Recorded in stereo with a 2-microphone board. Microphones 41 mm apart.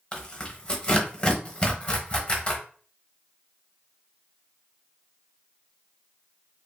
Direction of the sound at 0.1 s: 25° left (ahead or behind).